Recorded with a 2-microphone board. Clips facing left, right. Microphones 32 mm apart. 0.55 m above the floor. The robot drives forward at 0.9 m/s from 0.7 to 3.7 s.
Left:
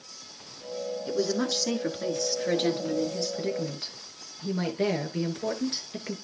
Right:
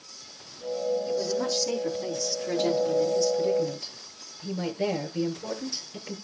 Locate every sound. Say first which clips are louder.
1.1 s a woman speaking: even; 65° left (ahead or behind), 6.5 m; by 6.2 s 50° left (ahead or behind), 7.5 m